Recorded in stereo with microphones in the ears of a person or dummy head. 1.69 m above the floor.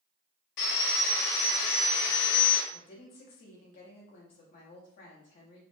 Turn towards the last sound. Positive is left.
turn(degrees=30)  # may be behind; listen again after turning